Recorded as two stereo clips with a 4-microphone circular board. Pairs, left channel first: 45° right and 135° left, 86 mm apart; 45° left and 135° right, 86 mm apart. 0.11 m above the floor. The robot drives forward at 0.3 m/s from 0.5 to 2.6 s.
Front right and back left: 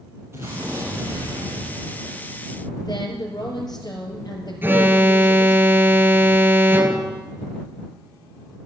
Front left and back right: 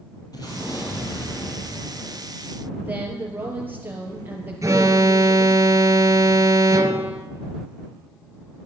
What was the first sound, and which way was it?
An explosion, 75° left.